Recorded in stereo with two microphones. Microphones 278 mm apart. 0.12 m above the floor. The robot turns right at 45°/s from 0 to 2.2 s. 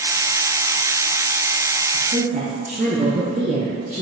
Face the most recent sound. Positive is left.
turn(degrees=-30)  # may be behind; listen again after turning